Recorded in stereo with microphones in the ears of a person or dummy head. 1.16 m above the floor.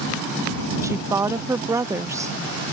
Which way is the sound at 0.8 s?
5° right (ahead or behind).